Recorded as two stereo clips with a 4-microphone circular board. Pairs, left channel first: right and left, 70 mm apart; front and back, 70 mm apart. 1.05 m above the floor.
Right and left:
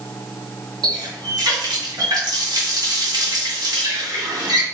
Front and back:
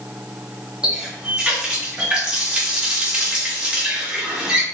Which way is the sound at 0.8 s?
105° left.